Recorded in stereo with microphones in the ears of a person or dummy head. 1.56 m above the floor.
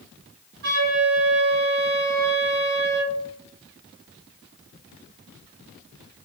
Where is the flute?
55° right (ahead or behind), 1.6 m.